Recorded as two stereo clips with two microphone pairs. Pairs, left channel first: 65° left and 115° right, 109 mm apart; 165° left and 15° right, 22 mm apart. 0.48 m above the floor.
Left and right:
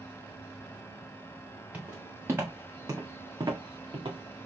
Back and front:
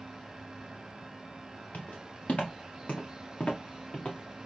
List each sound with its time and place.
1.7 s footsteps: 170° left, 2.5 m; by 4.5 s 145° right, 1.5 m